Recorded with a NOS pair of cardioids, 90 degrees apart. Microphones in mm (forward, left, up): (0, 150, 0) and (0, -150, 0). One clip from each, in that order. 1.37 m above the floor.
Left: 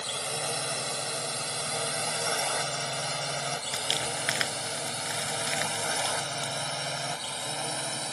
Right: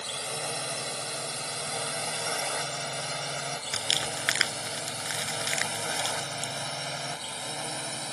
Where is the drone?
15° left.